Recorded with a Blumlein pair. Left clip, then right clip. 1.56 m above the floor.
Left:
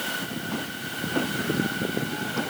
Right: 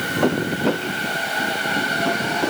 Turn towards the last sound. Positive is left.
No sound to turn to.